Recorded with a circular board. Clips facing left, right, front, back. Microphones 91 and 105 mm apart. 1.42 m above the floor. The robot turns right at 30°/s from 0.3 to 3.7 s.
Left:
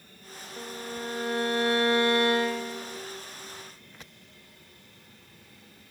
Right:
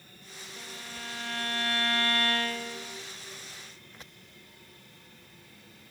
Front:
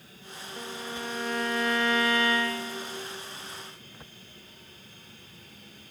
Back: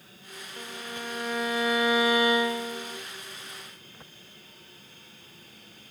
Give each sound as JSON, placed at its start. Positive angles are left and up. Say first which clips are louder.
{"t": 0.6, "sound": "a violin", "louder": "left 9 dB, front 2 dB", "azimuth_deg": 75, "distance_m": 0.6}